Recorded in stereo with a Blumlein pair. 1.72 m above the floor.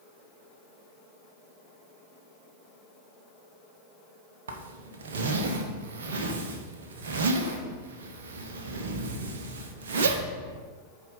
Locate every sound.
4.5 s a zipper: 60° right, 1.0 m